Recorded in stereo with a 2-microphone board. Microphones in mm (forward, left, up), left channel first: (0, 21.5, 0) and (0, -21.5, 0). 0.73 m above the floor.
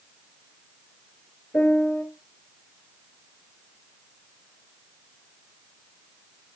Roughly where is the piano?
Left.